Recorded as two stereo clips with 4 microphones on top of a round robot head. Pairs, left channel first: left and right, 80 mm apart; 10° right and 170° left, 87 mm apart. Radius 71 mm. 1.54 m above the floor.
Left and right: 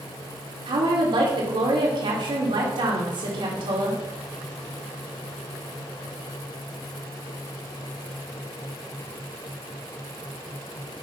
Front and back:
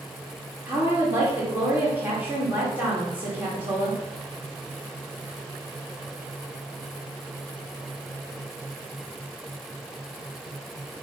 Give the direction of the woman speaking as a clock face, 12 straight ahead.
4 o'clock.